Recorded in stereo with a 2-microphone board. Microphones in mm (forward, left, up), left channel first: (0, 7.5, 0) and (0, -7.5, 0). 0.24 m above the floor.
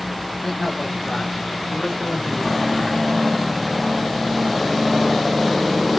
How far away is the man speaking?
About 2.5 m.